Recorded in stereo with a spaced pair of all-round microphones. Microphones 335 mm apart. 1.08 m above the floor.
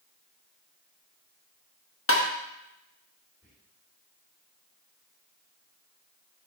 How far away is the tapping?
About 0.9 m.